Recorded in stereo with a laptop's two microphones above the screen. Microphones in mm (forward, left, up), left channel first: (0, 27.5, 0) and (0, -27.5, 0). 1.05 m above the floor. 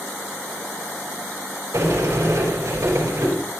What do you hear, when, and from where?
1.7 s a sliding door: 45° right (ahead or behind), 5 m